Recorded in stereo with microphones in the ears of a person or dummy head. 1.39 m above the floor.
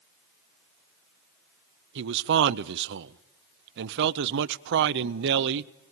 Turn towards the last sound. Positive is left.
turn(degrees=-65)  # may be behind; listen again after turning